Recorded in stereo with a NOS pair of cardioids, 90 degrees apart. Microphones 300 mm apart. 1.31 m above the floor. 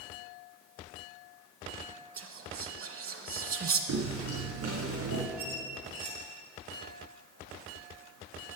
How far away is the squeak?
About 4 m.